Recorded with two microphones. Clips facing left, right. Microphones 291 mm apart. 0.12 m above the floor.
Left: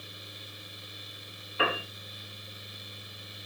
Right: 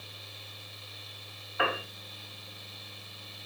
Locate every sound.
1.6 s a piano: 30° left (ahead or behind), 6.5 m